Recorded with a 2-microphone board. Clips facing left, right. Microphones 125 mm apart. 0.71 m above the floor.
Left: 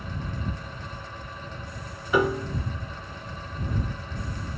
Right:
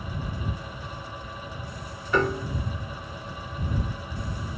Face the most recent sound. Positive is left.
turn(degrees=10)  # may be behind; listen again after turning